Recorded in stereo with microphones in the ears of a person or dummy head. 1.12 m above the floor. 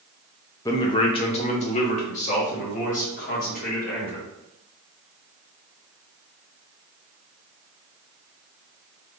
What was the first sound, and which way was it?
A man speaking, 15° left (ahead or behind).